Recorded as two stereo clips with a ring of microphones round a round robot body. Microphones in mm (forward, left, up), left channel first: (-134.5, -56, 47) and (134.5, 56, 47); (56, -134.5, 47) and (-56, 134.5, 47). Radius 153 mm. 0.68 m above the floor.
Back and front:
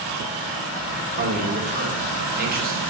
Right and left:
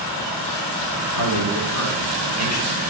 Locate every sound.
1.1 s a man speaking: 35° right, 2.5 m